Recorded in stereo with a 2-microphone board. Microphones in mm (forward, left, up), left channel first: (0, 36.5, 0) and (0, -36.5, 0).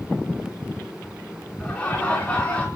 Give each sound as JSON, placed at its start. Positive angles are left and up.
{"t": 1.6, "sound": "laughter", "side_deg": 20, "distance_m": 4.5}